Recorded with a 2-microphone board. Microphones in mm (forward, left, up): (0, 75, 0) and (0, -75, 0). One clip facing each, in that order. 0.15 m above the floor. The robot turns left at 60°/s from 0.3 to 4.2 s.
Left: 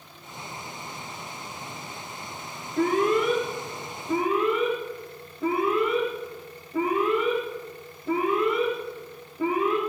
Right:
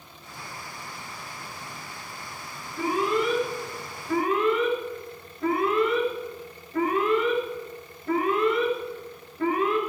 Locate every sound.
2.8 s an alarm: 55° left (ahead or behind), 3.5 m; by 9.8 s 15° left (ahead or behind), 3.5 m